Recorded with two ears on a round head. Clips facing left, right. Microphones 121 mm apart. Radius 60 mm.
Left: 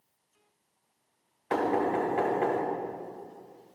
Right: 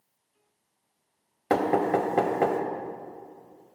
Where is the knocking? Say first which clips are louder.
Right 4 dB; 70° right (ahead or behind), 1.7 m.